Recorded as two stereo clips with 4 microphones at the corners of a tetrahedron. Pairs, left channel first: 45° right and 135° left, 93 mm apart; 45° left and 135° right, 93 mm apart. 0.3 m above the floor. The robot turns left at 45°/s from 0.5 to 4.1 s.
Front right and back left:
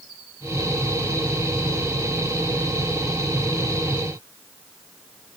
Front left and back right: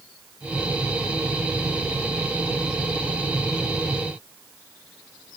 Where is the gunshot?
No gunshot in this recording.